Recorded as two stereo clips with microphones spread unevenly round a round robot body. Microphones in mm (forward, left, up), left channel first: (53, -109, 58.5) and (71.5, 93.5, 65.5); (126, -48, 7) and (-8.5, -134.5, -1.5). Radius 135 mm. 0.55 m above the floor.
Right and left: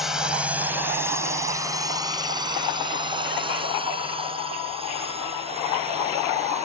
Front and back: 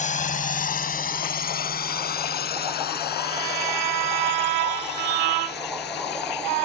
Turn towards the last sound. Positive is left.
turn(degrees=25)